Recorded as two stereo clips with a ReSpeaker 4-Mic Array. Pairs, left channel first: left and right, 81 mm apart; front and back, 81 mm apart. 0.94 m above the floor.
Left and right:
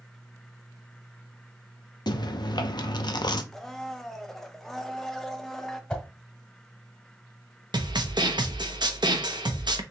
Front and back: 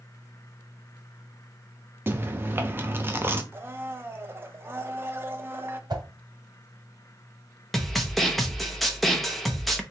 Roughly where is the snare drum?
Right.